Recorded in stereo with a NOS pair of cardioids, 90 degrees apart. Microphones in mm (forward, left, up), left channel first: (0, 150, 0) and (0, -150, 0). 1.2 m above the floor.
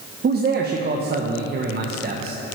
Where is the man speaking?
35° right, 0.9 m.